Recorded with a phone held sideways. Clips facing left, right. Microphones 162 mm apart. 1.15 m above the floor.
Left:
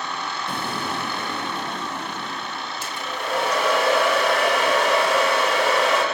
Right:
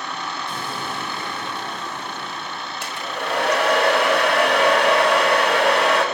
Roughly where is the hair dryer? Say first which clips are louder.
Right 3 dB; right.